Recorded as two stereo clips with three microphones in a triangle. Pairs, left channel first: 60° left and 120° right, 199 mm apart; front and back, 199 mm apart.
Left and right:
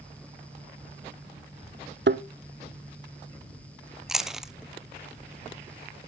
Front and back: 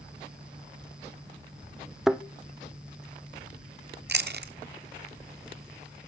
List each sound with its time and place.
2.1 s a thud: 95° right, 0.7 m
4.1 s chewing: 150° left, 0.8 m